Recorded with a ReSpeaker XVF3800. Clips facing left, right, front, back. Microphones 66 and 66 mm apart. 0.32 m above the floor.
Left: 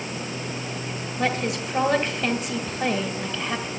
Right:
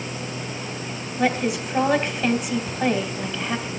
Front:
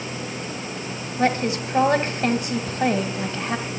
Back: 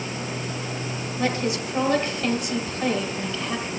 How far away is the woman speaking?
About 1.4 m.